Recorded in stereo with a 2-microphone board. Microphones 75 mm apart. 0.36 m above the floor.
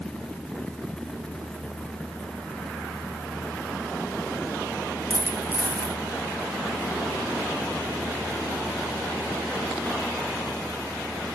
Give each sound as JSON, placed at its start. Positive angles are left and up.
{"t": 5.1, "sound": "a dropped coin", "side_deg": -25, "distance_m": 0.6}